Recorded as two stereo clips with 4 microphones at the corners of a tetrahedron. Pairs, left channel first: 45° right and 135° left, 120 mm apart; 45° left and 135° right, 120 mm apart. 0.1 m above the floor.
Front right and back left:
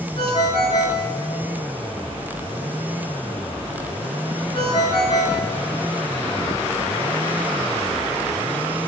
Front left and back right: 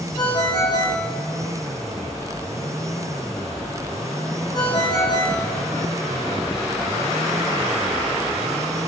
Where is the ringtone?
10° right, 4.5 m.